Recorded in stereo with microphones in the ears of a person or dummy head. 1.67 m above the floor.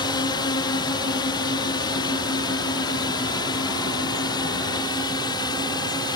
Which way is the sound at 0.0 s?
25° left (ahead or behind).